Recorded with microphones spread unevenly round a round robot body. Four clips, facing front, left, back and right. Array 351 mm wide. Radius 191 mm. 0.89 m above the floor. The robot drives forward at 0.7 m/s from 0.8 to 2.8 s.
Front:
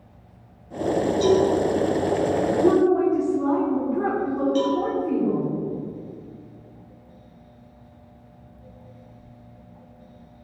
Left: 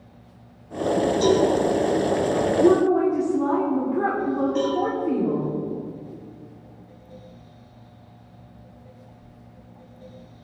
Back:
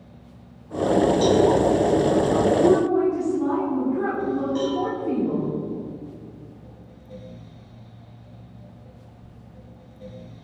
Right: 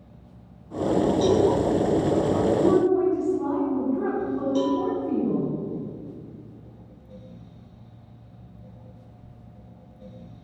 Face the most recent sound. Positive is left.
turn(degrees=-80)